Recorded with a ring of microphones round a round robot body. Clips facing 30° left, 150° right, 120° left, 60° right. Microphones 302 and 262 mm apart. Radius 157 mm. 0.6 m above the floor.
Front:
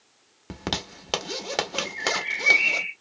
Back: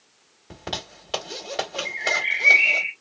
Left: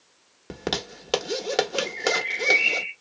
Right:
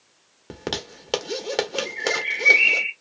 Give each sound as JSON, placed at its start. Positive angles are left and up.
{"t": 0.5, "sound": "a zipper", "azimuth_deg": 35, "distance_m": 1.1}
{"t": 1.9, "sound": "a bird", "azimuth_deg": -85, "distance_m": 1.5}